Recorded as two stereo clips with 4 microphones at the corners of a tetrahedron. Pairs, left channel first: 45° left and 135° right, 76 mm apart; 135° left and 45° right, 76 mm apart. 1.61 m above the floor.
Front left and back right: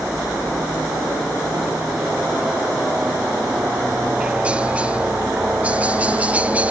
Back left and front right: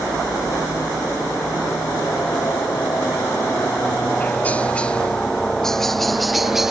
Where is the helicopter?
145° left; by 6.7 s 115° right.